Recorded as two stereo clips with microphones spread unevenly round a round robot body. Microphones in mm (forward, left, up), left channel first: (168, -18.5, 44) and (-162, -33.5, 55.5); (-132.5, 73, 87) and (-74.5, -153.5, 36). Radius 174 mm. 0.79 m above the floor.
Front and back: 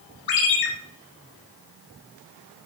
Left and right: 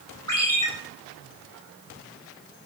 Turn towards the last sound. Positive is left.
turn(degrees=20)